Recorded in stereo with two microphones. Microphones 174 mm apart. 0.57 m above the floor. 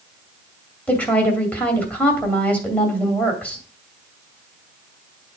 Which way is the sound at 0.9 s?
10° left (ahead or behind).